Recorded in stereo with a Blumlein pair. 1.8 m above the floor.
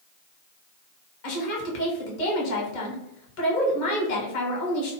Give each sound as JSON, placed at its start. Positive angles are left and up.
{"t": 1.2, "sound": "a woman speaking", "azimuth_deg": 50, "distance_m": 1.0}